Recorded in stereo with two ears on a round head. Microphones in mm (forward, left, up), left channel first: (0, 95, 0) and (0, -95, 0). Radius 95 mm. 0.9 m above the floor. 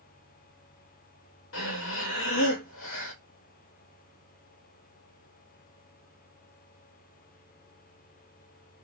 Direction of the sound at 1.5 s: 65° left (ahead or behind).